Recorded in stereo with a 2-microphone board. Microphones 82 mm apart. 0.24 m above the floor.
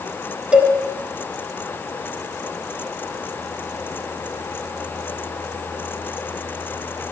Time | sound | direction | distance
0.5 | a cowbell | 15° right (ahead or behind) | 1.7 m